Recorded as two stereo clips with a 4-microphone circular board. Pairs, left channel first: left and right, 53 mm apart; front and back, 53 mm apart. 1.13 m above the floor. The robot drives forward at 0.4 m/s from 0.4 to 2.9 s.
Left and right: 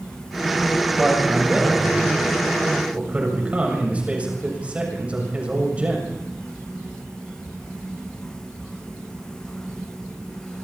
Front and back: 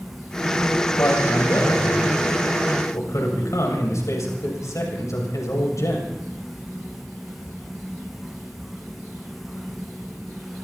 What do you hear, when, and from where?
1.0 s a man speaking: 20° right, 8 m; by 6.1 s 25° right, 7 m